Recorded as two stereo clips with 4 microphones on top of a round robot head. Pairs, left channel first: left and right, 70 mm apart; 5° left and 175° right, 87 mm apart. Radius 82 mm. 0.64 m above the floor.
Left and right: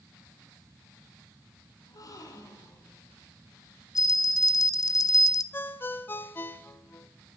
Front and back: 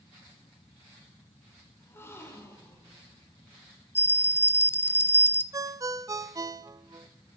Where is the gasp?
65° left, 3 m.